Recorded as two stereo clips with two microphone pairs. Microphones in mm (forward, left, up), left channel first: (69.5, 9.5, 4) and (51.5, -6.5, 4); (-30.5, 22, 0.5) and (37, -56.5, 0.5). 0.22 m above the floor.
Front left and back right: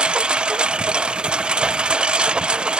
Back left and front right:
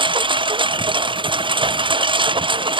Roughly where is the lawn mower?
Right.